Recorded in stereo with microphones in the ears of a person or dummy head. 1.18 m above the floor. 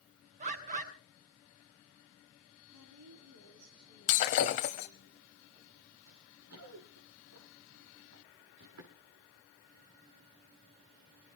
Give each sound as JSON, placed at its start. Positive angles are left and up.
{"t": 0.4, "sound": "a bird", "side_deg": -40, "distance_m": 4.0}
{"t": 2.7, "sound": "a woman speaking", "side_deg": -80, "distance_m": 10.0}
{"t": 4.1, "sound": "breaking glass", "side_deg": 30, "distance_m": 1.2}
{"t": 6.1, "sound": "running footsteps", "side_deg": -80, "distance_m": 9.0}